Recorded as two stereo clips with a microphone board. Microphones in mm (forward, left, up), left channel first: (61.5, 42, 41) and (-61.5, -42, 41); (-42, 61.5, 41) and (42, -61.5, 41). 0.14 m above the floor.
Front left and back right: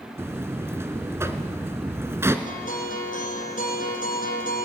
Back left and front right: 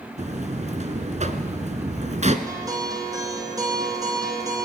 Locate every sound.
0.2 s a buzzer: 75° right, 1.5 m
2.5 s a guitar: 10° left, 4.5 m